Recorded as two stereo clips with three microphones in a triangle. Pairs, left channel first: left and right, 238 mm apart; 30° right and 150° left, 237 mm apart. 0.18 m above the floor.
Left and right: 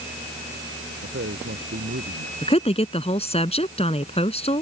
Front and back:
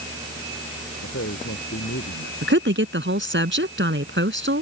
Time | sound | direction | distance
1.0 | a man speaking | 55° right | ?
2.4 | a woman speaking | 145° left | ?